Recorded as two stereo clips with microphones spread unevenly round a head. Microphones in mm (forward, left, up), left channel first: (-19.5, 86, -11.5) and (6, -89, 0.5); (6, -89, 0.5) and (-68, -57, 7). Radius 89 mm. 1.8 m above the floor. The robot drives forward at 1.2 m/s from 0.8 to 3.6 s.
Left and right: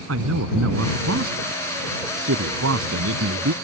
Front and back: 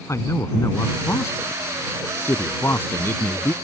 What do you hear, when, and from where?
0.1 s a man speaking: 75° right; by 3.5 s 85° right